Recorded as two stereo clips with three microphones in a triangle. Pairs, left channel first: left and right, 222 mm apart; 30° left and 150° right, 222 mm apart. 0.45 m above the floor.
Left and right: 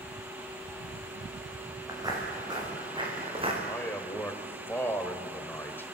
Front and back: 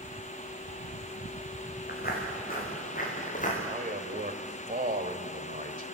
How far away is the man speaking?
About 2 m.